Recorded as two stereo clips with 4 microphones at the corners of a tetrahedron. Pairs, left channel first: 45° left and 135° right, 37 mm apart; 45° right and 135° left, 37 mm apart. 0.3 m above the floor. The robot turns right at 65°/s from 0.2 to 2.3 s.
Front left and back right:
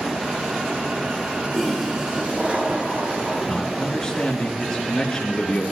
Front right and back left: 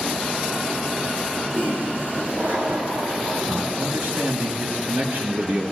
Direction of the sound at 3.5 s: 115° left.